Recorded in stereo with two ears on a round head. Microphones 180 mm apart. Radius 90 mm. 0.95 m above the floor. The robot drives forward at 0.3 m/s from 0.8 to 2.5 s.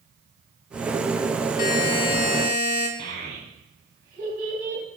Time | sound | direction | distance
1.6 | a buzzer | 45° left (ahead or behind) | 0.9 m
3.0 | a child speaking | 50° right (ahead or behind) | 2 m